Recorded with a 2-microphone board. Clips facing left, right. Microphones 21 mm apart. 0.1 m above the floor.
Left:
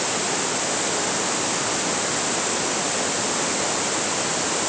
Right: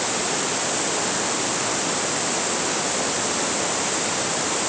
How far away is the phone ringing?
I don't hear a phone ringing.